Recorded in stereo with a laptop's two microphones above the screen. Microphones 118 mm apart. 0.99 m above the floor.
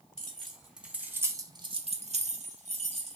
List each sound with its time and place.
0.2 s keys jangling: 5° left (ahead or behind), 1.0 m; by 3.2 s 55° right (ahead or behind), 0.9 m